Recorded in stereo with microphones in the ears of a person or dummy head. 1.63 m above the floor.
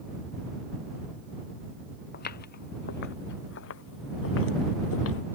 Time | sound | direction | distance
2.1 | footsteps | 60° left (ahead or behind) | ?